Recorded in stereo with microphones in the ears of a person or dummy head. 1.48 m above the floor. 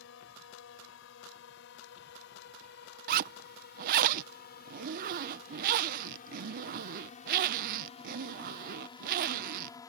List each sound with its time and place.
0.0 s a drone: 60° left (ahead or behind); by 9.9 s 10° left (ahead or behind)
3.1 s a zipper: 50° right (ahead or behind)